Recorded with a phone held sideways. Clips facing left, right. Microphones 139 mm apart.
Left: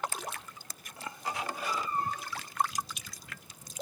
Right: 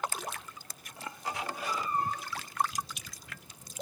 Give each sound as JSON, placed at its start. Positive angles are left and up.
{"t": 1.6, "sound": "a cat meowing", "side_deg": -70, "distance_m": 2.0}